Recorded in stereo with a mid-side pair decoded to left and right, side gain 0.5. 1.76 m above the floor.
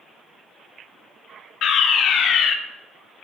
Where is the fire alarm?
60° left, 0.9 m.